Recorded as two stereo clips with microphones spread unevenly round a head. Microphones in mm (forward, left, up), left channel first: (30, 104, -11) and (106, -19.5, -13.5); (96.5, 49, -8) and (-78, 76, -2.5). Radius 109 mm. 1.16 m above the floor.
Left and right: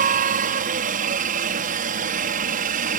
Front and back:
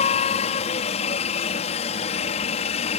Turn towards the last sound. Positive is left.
turn(degrees=-65)